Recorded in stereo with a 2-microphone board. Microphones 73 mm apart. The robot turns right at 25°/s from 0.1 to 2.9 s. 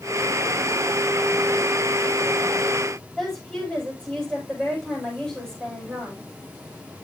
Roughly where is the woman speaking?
Centre.